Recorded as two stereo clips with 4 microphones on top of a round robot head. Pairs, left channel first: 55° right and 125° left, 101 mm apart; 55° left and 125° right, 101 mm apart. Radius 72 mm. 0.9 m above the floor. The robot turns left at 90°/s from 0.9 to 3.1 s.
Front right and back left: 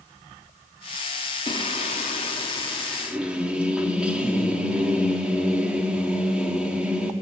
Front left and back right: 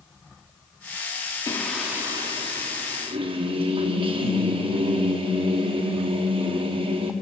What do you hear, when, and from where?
1.5 s singing: 10° right, 2.5 m; by 7.1 s 155° right, 2.5 m